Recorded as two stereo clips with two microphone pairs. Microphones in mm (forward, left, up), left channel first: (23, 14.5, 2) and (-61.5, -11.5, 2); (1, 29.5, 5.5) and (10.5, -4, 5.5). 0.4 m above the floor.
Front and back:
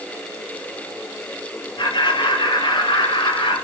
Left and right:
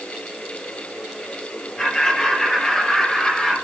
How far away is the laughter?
About 6.5 m.